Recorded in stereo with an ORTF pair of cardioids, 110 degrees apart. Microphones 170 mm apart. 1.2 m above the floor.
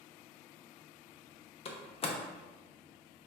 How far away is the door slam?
About 0.6 m.